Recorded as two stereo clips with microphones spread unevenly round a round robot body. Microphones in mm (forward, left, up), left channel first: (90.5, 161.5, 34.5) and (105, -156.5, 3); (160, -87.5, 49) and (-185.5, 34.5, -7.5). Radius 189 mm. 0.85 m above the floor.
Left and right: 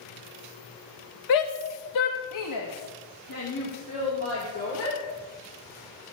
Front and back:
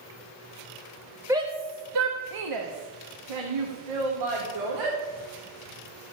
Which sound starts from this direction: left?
A shout, at 1.3 s.